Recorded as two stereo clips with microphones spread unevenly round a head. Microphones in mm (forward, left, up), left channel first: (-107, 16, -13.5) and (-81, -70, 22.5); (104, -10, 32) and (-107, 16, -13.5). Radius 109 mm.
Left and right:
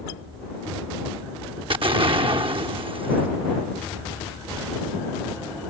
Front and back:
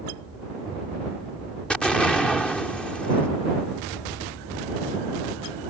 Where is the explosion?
90° right.